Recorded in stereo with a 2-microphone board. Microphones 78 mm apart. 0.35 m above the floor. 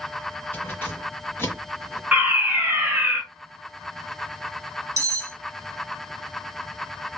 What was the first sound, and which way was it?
Keys jangling, 25° left (ahead or behind).